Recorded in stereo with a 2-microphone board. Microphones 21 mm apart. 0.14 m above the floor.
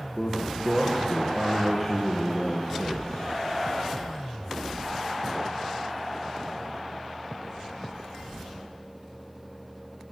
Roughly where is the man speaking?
Centre.